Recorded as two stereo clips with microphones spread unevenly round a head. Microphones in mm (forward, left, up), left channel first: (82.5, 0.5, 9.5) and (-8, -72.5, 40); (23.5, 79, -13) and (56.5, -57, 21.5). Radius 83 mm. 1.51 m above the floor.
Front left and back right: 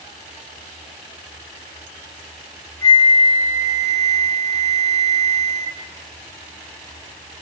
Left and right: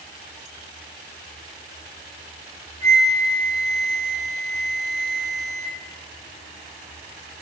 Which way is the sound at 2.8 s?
35° right.